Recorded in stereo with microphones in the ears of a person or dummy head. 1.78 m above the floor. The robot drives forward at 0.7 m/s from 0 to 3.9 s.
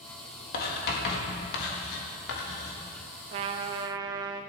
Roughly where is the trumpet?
Right.